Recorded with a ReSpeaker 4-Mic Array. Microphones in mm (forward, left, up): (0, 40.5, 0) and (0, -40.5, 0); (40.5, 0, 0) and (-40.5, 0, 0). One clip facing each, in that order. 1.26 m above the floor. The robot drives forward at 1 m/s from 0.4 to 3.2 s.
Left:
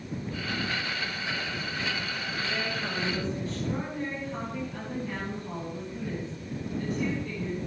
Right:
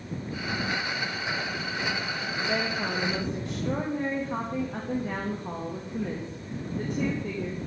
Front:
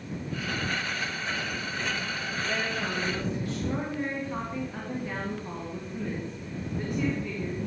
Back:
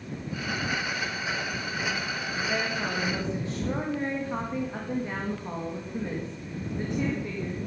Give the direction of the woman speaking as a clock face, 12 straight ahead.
3 o'clock.